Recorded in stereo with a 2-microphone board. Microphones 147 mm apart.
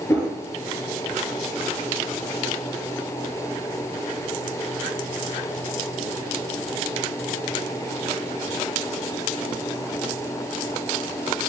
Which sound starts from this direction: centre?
A whoosh, at 0.1 s.